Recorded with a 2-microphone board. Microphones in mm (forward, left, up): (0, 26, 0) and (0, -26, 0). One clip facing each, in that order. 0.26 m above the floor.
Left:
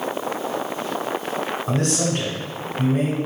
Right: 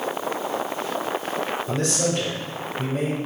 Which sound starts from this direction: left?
A man speaking, at 1.7 s.